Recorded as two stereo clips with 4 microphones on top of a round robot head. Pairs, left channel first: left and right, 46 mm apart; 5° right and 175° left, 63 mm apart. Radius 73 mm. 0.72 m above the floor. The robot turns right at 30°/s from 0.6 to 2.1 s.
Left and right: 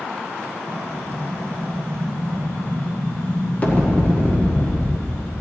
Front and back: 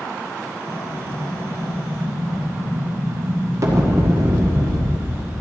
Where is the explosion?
100° left, 1.7 m; by 5.3 s 140° left, 1.7 m.